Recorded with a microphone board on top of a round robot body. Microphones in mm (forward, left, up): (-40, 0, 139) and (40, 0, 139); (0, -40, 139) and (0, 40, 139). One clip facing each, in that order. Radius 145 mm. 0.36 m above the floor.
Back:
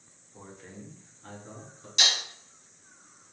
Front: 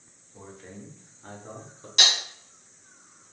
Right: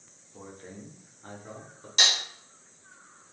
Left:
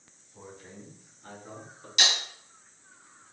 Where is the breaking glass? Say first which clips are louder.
Front 3 dB, even; 40° right, 1.1 m.